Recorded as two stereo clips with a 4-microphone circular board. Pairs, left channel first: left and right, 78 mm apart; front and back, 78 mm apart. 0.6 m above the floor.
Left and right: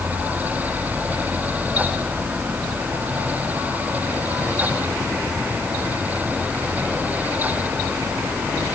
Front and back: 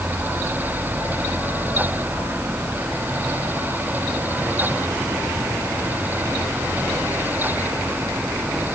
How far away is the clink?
I don't hear a clink.